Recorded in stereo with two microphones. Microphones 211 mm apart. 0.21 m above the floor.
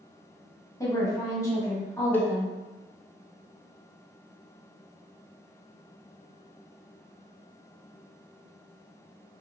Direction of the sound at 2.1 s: 10° left (ahead or behind).